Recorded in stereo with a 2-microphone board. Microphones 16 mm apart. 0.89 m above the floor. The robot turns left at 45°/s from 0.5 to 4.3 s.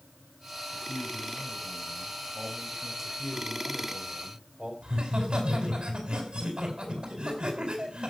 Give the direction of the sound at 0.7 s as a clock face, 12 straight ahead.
11 o'clock.